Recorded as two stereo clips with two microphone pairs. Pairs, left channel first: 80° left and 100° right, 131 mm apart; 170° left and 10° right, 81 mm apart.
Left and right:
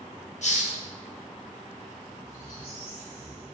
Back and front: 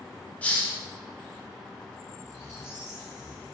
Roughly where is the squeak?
Behind right.